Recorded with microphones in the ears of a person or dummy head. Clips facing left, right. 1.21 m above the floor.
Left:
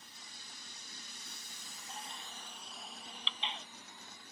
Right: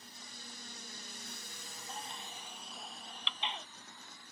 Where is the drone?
45° right (ahead or behind); by 4.3 s 25° left (ahead or behind).